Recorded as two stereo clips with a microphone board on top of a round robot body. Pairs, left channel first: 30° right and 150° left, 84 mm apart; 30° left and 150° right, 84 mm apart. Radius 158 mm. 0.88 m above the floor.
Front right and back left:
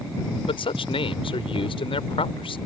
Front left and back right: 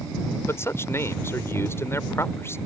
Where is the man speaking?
30° right.